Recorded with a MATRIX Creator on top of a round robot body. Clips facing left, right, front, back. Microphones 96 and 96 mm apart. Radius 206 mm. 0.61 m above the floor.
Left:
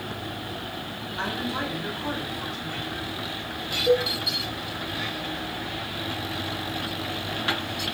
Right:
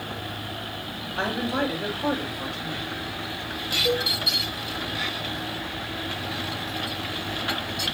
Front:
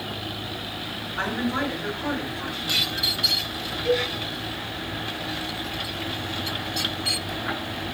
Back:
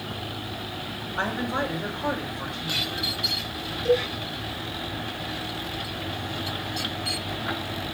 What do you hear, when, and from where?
1.2 s a woman speaking: 110° right, 3.5 m
3.9 s a cowbell: 125° right, 3.5 m